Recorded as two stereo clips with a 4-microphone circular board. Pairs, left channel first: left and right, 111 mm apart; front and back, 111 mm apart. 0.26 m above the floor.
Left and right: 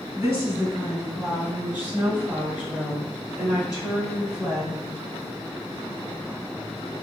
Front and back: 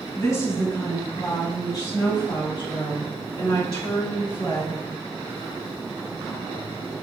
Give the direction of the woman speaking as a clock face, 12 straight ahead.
1 o'clock.